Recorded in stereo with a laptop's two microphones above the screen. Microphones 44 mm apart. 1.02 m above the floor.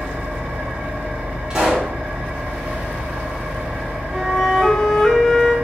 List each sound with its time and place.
0.0 s an engine running: 35° right (ahead or behind), 2.5 m
1.5 s a pop: 20° right (ahead or behind), 1.6 m
4.1 s a flute: 5° left (ahead or behind), 0.8 m